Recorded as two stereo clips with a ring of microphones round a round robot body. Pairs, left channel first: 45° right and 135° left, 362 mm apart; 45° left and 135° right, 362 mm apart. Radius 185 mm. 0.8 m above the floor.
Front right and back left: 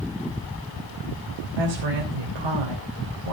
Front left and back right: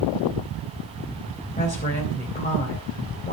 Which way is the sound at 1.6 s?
115° left.